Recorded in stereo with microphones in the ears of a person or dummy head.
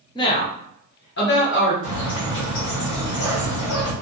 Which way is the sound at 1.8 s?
70° left (ahead or behind).